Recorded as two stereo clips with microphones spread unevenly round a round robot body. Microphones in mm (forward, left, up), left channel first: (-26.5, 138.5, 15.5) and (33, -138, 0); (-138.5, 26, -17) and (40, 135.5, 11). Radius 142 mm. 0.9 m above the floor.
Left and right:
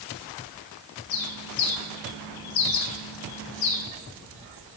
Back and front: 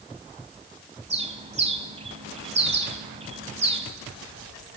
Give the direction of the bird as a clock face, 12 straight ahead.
9 o'clock.